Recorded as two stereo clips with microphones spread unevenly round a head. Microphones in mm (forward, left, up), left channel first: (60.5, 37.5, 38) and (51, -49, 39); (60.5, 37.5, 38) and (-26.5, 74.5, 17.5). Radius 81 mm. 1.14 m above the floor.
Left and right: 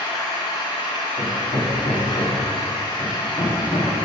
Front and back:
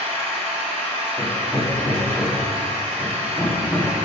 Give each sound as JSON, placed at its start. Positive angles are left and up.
{"t": 0.0, "sound": "an engine running", "azimuth_deg": 140, "distance_m": 2.0}
{"t": 1.2, "sound": "hammering", "azimuth_deg": 60, "distance_m": 2.0}